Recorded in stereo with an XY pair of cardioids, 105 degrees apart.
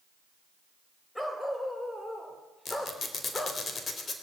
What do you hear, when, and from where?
1.1 s a dog barking: 10° left, 3 m; by 3.6 s 20° left, 1.6 m
2.6 s a squeak: 40° left, 3.5 m